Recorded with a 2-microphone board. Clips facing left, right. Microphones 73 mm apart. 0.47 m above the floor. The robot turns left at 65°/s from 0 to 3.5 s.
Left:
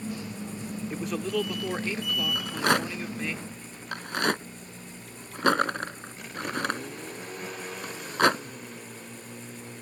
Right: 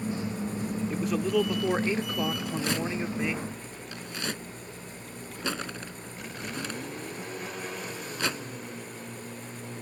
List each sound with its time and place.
0.9 s a man speaking: 10° left; by 3.4 s 150° right
2.4 s a rattle: 45° left (ahead or behind); by 8.4 s 60° left (ahead or behind)